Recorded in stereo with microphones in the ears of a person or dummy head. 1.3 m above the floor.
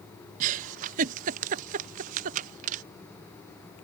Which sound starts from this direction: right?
A giggle, at 0.4 s.